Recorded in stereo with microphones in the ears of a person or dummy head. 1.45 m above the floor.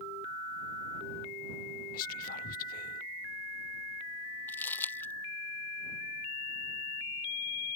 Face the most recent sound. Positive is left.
turn(degrees=15)  # may be behind; listen again after turning